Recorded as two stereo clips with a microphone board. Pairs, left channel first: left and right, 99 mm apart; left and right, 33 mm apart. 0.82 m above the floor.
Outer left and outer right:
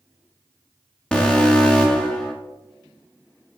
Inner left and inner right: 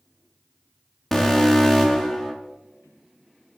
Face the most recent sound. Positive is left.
turn(degrees=10)  # may be behind; listen again after turning